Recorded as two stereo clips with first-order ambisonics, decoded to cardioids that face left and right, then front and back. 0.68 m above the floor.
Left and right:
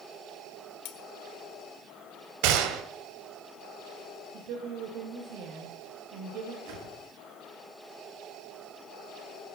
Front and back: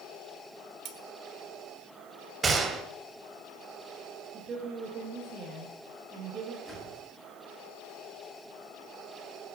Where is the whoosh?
90° right, 6.5 m.